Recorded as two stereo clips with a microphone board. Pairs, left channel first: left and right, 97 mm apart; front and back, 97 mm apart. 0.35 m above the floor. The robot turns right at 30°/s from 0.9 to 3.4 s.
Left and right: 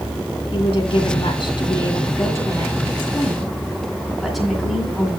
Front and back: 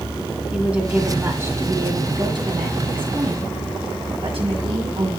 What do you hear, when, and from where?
0.5 s a woman speaking: 105° left, 2.5 m; by 5.2 s straight behind, 2.5 m